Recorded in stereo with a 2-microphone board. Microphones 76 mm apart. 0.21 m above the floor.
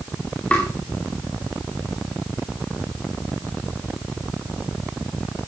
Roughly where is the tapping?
Centre.